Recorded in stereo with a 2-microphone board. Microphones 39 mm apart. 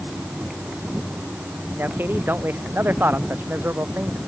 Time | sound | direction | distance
1.8 | a man speaking | 60° right (ahead or behind) | ?